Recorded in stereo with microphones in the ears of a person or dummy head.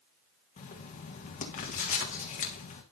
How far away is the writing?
About 1.4 m.